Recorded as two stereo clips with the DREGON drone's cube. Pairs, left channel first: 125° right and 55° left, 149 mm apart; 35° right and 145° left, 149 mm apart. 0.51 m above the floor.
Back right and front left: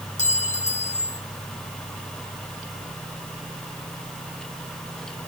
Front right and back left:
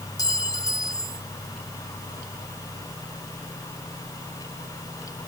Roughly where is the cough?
No cough in this recording.